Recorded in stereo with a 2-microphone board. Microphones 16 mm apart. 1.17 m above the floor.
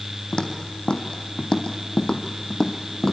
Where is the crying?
I don't hear crying.